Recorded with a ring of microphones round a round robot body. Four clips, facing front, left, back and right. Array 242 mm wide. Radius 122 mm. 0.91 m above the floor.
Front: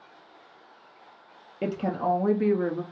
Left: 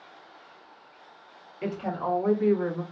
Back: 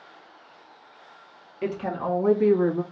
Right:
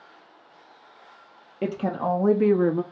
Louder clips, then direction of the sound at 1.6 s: Right 4 dB, front 1 dB; 45° right.